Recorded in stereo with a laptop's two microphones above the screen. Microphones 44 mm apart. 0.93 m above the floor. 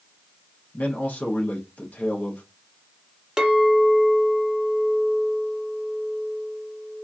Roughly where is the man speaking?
Left.